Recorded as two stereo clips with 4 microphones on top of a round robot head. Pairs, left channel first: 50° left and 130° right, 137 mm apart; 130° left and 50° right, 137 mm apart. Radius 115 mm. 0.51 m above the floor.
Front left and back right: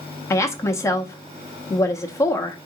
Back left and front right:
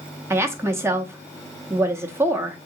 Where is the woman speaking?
Straight ahead, 0.7 m.